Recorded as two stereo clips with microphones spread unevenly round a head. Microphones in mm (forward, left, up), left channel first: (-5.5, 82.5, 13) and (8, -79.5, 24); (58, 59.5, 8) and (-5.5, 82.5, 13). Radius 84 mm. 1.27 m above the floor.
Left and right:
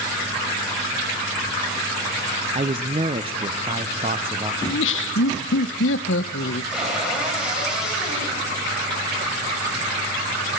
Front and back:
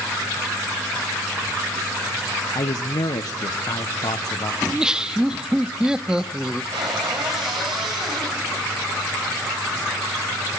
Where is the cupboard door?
170° right, 6.5 m.